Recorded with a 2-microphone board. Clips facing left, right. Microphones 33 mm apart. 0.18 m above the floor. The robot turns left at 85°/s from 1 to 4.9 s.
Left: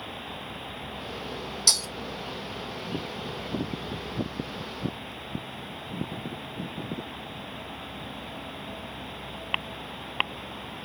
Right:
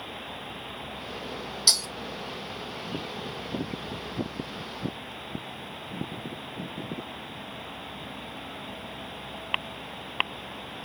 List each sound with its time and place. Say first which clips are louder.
1.7 s breaking glass: right 1 dB; 20° right (ahead or behind), 1.7 m; by 1.9 s 5° right (ahead or behind), 1.7 m